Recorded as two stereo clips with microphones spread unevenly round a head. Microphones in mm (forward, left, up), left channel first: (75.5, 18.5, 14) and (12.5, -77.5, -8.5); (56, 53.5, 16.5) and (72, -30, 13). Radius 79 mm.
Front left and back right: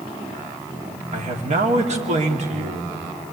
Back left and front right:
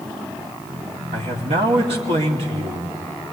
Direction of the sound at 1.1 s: 110° right.